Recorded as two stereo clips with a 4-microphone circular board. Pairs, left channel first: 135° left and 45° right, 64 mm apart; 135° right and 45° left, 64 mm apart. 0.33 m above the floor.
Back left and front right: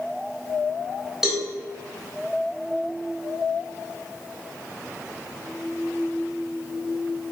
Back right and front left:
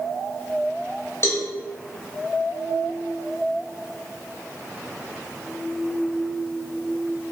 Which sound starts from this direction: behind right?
A cowbell, at 1.2 s.